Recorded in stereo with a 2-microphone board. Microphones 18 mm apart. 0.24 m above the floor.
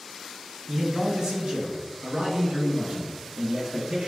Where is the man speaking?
50° right (ahead or behind), 1.9 m; by 4.1 s 75° right (ahead or behind), 3.5 m.